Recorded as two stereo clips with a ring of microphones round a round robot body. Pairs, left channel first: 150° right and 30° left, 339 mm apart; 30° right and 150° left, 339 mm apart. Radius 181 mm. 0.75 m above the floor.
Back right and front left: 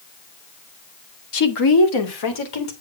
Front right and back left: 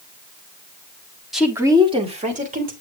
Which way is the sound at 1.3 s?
120° right.